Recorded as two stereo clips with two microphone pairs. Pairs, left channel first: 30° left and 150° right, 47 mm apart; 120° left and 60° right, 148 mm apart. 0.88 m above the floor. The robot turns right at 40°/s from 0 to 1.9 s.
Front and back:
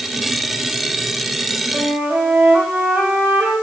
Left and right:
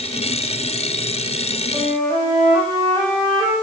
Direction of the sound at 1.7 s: 125° right.